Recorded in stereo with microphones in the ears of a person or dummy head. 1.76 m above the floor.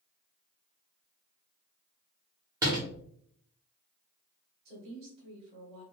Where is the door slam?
15° right (ahead or behind), 0.9 m.